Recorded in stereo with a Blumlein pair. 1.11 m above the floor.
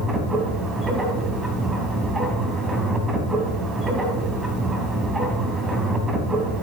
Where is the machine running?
10° right, 2.5 m.